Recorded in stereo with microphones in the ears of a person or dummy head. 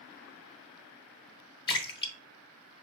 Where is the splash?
25° left (ahead or behind), 0.7 m.